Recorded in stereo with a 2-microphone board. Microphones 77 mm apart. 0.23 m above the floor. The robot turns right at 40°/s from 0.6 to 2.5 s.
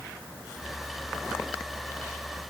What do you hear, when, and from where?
Only background noise.